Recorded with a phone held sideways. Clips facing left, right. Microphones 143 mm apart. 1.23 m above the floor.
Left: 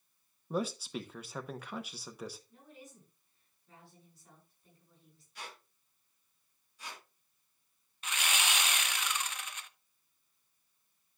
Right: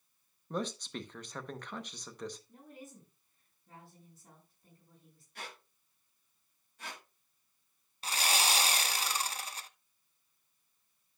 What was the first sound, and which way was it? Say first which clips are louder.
A man speaking: left 2 dB; 5° left (ahead or behind).